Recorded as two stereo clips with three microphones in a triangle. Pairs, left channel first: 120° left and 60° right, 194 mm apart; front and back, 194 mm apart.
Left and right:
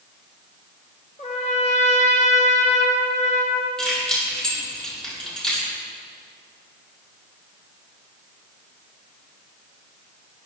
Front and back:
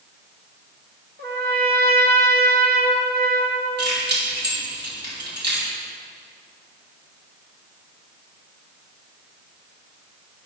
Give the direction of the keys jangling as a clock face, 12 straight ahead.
5 o'clock.